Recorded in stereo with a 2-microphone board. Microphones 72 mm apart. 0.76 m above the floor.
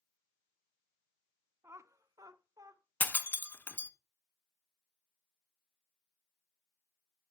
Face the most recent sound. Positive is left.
turn(degrees=25)  # may be behind; listen again after turning